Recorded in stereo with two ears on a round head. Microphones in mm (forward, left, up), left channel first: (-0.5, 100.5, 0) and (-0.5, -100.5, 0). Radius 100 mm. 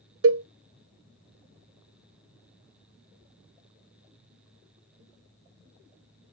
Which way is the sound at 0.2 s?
65° right (ahead or behind).